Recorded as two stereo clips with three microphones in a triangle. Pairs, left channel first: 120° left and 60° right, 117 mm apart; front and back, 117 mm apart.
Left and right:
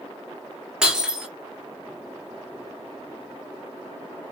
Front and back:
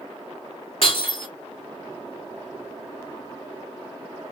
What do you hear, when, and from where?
0.8 s breaking glass: 20° left, 1.5 m